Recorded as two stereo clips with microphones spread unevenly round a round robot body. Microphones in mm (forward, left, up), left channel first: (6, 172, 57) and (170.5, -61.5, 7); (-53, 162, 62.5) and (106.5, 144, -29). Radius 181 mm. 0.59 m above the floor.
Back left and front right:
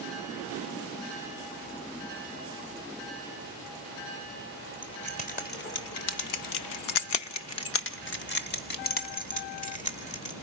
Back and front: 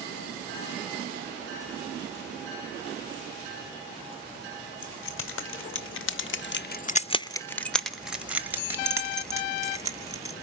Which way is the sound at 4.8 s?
155° right.